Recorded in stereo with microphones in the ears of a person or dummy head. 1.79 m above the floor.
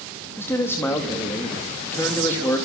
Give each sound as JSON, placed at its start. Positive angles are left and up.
{"t": 0.4, "sound": "a man speaking", "side_deg": 15, "distance_m": 3.5}